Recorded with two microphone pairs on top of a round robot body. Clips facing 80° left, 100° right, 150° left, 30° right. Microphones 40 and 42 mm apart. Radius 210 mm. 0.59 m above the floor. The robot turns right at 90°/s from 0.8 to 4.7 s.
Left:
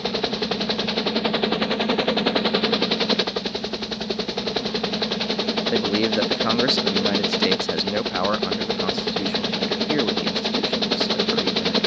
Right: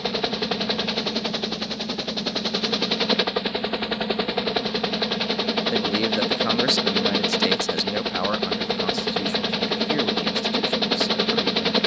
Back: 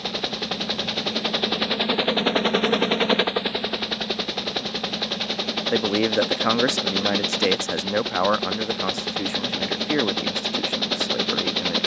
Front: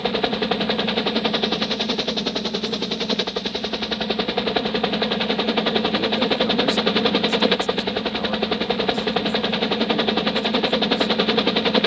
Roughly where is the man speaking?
Behind.